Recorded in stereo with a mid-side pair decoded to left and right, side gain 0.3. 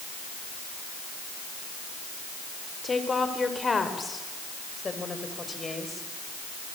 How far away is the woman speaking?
About 4.5 m.